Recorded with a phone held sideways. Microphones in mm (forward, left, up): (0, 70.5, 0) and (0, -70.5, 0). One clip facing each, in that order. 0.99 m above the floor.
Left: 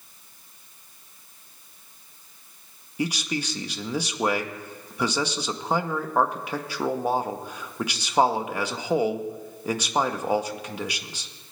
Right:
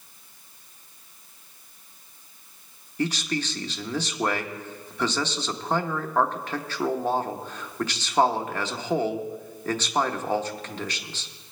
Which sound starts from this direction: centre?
A man speaking, at 3.0 s.